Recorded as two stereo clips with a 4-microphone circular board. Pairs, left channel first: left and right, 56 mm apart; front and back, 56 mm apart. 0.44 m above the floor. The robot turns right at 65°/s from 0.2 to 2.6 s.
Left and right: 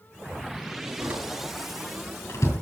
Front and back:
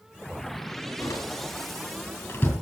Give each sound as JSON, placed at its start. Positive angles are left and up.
{"t": 1.0, "sound": "a door slam", "azimuth_deg": -40, "distance_m": 4.5}